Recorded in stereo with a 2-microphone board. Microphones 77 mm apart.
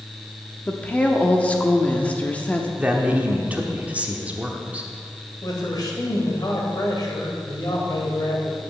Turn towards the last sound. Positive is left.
turn(degrees=60)  # may be behind; listen again after turning